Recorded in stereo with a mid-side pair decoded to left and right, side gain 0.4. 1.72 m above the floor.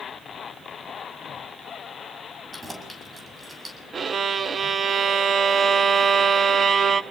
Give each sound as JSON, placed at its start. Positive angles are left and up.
{"t": 2.5, "sound": "keys jangling", "azimuth_deg": -30, "distance_m": 7.0}
{"t": 3.9, "sound": "a violin", "azimuth_deg": -50, "distance_m": 1.3}